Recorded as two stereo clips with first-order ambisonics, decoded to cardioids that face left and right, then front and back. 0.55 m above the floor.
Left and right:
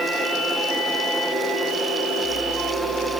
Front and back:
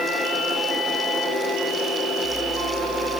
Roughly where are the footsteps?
No footsteps in this recording.